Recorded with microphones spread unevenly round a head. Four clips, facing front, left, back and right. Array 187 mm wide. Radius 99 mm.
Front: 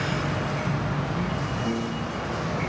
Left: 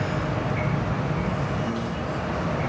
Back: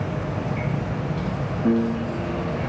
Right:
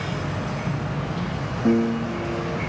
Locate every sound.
1.6 s a piano: 130° right